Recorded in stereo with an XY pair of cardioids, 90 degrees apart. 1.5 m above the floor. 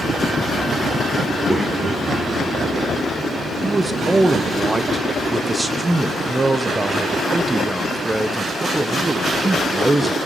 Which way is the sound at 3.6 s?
20° right.